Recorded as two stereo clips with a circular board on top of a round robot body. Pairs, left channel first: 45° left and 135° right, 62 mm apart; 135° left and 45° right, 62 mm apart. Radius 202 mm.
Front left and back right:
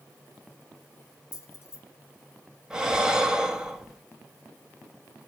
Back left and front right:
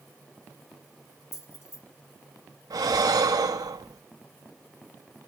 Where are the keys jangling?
95° left, 2.5 m.